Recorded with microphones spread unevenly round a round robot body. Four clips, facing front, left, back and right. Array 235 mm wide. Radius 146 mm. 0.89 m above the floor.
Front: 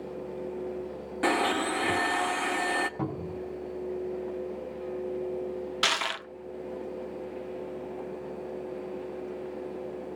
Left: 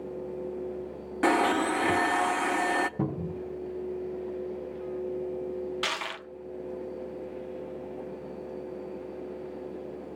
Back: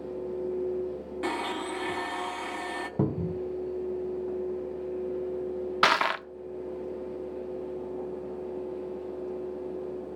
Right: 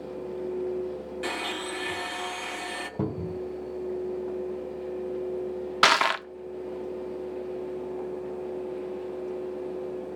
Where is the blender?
75° left, 0.9 m.